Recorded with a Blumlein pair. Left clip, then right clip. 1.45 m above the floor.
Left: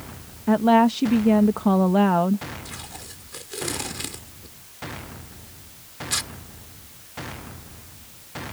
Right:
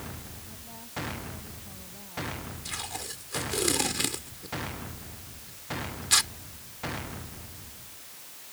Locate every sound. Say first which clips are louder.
0.5 s a woman speaking: left 34 dB; 45° left
2.6 s tape being pulled: right 2 dB; 10° right